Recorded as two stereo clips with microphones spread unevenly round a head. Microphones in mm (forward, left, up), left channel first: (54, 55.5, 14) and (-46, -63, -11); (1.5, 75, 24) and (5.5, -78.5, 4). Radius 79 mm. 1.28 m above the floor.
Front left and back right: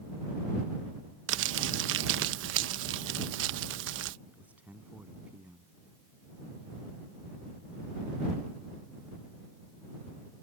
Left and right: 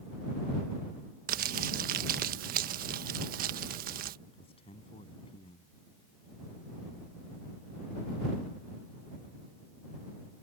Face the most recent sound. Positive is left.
turn(degrees=150)